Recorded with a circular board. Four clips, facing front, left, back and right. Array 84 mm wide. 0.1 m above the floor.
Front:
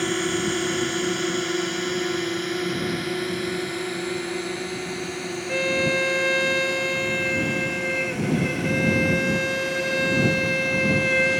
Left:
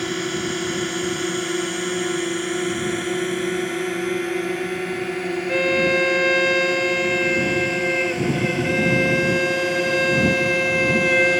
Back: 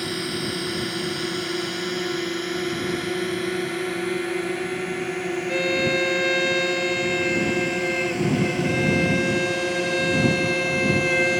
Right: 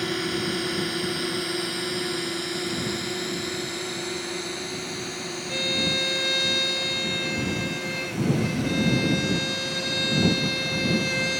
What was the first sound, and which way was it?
A drone, 25° left.